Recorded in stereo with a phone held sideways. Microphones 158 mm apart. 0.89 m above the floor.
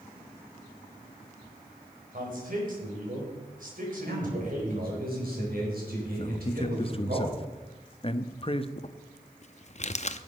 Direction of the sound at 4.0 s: 70° right (ahead or behind).